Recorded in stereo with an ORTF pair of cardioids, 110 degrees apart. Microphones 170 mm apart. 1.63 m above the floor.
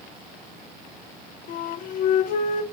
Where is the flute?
60° left, 0.6 m.